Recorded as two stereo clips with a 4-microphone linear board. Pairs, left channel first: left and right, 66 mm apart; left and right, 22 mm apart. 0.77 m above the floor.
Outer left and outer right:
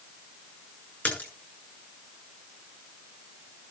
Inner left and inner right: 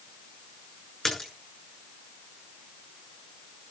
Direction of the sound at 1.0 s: 20° left (ahead or behind).